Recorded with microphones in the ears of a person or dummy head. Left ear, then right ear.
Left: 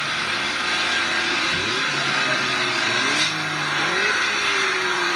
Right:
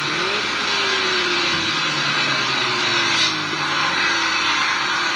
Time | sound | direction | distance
0.0 | an engine running | centre (ahead or behind) | 1.4 m